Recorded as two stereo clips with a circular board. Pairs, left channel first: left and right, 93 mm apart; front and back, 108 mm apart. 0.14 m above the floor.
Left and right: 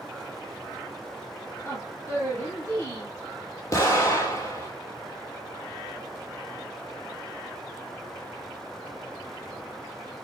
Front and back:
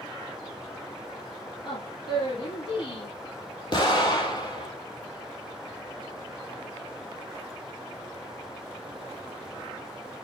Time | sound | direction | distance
1.6 | a woman speaking | 30° left | 3.5 m
3.7 | an explosion | 40° left | 3 m